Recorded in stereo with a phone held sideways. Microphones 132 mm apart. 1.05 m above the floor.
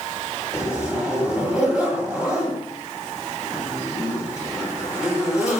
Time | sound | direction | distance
0.5 | a zipper | 10° right (ahead or behind) | 8.5 m